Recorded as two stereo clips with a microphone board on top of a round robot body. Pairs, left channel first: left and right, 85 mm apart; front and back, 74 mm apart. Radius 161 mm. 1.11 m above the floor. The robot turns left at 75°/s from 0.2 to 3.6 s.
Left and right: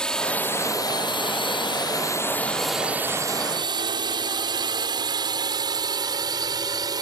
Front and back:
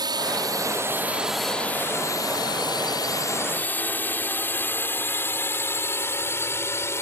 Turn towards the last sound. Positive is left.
turn(degrees=-55)